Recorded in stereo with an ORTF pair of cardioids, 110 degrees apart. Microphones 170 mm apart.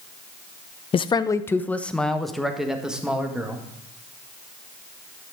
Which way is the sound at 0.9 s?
35° left.